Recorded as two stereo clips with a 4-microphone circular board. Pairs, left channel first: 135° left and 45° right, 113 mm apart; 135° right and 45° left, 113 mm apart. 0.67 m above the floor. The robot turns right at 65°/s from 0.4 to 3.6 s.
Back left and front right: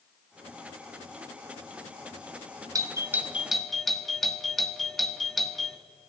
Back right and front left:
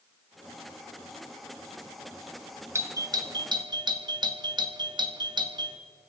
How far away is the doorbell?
About 1.4 m.